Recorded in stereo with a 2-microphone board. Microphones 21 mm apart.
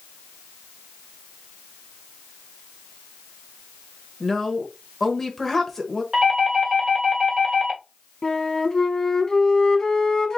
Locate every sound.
4.2 s a woman speaking: 20° left (ahead or behind), 1.1 m
6.1 s a doorbell: 15° right (ahead or behind), 2 m
8.2 s a flute: 30° left (ahead or behind), 0.9 m